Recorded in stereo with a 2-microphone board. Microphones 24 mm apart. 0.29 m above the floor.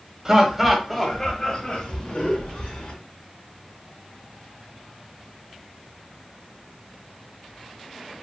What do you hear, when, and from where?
0.2 s laughter: 25° right (ahead or behind), 1.5 m; by 2.9 s 50° left (ahead or behind), 3 m